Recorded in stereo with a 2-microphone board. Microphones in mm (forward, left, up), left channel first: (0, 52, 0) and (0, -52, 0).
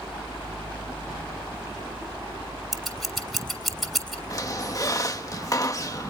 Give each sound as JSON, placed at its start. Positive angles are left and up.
{"t": 2.7, "sound": "scissors", "side_deg": 0, "distance_m": 3.0}
{"t": 4.3, "sound": "a squeak", "side_deg": 35, "distance_m": 1.1}